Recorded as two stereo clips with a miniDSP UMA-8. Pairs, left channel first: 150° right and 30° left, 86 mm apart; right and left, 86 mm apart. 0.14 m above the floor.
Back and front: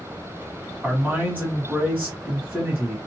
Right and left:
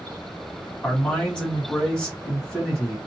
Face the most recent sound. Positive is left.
turn(degrees=-20)